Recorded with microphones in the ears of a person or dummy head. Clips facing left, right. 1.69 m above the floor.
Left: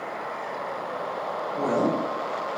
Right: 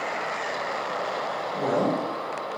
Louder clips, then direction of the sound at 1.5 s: Even; 35° right (ahead or behind).